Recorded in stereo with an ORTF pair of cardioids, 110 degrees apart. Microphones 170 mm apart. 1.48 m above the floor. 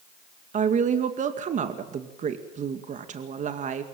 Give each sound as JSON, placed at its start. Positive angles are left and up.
{"t": 0.5, "sound": "a woman speaking", "azimuth_deg": -45, "distance_m": 2.5}